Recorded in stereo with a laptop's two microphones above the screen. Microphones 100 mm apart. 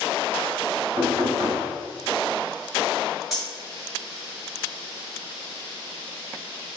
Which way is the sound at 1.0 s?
45° right (ahead or behind).